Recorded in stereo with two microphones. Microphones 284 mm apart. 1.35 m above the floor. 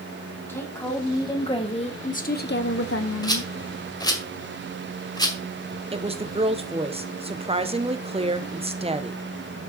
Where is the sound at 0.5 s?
10° left (ahead or behind), 2 m; by 3.5 s 65° left (ahead or behind), 0.8 m.